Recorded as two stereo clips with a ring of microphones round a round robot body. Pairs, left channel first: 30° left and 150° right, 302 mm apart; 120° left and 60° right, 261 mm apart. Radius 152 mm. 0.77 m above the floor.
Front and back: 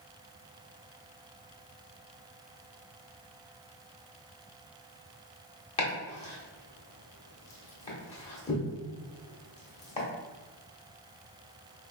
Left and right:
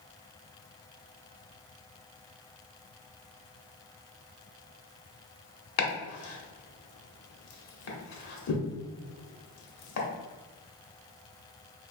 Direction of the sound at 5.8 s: 100° left.